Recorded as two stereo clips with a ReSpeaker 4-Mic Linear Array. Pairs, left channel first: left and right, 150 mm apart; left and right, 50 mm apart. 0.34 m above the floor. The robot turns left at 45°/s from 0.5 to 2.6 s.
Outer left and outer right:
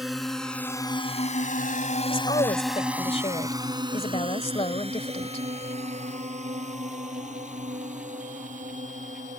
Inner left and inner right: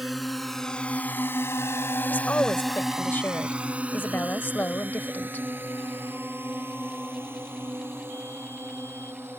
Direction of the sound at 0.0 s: Centre (ahead or behind).